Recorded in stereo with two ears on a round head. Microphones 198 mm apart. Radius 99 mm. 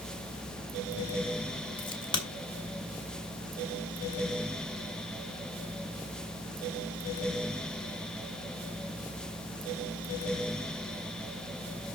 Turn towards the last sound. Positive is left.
turn(degrees=20)  # may be behind; listen again after turning